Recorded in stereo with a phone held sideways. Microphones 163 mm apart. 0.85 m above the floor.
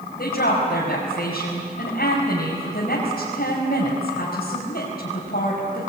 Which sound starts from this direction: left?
A woman speaking, at 0.2 s.